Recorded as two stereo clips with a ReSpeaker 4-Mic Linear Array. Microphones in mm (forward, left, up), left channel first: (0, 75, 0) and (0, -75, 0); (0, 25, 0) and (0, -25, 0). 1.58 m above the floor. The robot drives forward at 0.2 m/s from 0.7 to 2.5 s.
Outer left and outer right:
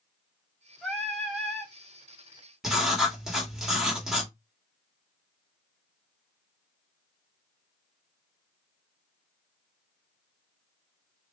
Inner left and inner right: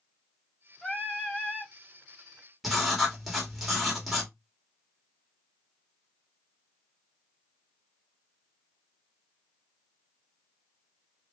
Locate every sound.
0.8 s singing: 5° left (ahead or behind), 0.8 m; by 1.7 s centre (ahead or behind), 1.0 m
2.6 s writing: 5° right (ahead or behind), 1.5 m